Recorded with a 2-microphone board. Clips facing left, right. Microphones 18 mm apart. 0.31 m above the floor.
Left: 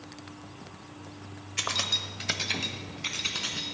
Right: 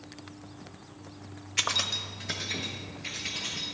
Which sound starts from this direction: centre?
Keys jangling, at 1.6 s.